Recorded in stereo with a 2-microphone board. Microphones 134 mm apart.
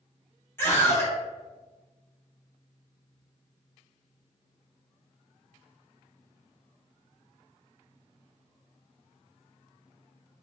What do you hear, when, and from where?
0.6 s a scream: 20° left (ahead or behind), 1.0 m